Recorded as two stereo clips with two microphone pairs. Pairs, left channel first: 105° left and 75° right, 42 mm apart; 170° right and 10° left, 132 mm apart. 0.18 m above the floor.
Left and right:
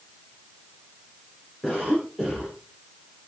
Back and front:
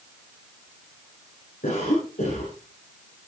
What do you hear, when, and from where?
1.6 s a cough: 175° right, 6 m